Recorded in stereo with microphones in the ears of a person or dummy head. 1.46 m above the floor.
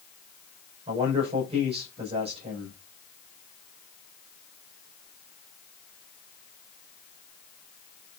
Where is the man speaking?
35° right (ahead or behind), 5.5 m.